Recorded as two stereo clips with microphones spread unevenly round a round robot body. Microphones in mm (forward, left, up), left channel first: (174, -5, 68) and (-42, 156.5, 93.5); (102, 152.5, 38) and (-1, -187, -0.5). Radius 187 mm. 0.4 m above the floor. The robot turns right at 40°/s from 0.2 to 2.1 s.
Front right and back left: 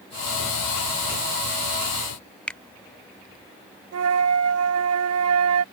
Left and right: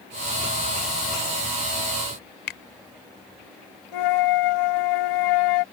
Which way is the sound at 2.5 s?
45° left.